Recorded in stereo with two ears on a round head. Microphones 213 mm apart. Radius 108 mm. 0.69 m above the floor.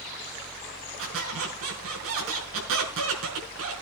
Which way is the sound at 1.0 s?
70° right (ahead or behind).